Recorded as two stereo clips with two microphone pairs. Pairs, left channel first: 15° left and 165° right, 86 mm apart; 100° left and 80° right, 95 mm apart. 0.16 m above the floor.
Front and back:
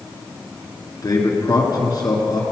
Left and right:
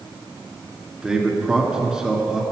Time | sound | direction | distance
1.0 | a man speaking | 5° left | 2 m